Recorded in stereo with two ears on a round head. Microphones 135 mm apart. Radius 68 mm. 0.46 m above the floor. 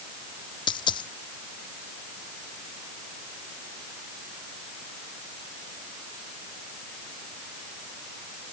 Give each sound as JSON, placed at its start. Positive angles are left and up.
{"t": 0.7, "sound": "a dropped coin", "side_deg": 35}